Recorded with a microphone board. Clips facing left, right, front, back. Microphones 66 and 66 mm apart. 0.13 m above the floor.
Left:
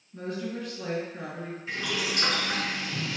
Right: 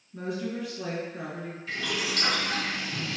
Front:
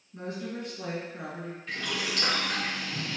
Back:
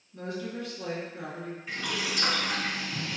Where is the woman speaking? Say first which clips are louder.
Right 1 dB, back 1 dB; 10° right, 1.7 m.